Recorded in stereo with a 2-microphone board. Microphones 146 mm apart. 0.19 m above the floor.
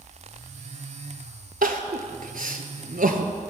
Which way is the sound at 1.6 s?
75° right (ahead or behind).